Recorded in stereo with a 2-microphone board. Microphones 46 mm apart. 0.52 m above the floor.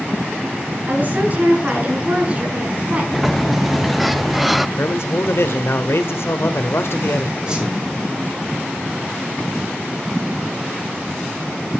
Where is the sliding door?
5° right (ahead or behind), 0.5 m.